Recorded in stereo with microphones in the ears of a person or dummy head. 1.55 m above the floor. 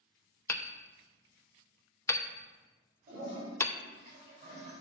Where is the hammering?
10° left (ahead or behind), 0.6 m.